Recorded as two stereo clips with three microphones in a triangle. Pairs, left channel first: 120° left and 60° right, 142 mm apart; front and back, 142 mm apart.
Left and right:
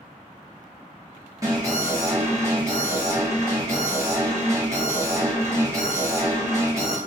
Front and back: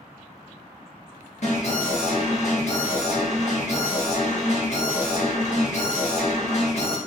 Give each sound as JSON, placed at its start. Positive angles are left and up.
{"t": 1.4, "sound": "an alarm", "azimuth_deg": 0, "distance_m": 1.5}